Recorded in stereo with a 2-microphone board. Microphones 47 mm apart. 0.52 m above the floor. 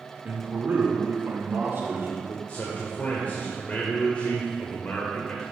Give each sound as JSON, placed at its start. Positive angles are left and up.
{"t": 0.2, "sound": "a man speaking", "side_deg": -35, "distance_m": 0.9}
{"t": 2.5, "sound": "a man speaking", "side_deg": 35, "distance_m": 1.4}